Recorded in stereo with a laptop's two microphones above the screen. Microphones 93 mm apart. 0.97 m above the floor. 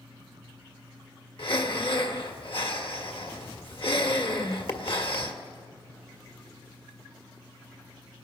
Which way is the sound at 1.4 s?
65° left (ahead or behind).